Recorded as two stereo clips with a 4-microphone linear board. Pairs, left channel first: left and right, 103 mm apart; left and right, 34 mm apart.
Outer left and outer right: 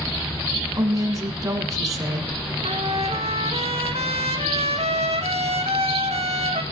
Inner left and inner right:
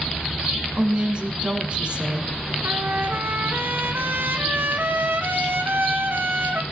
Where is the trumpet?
85° right, 1.8 m.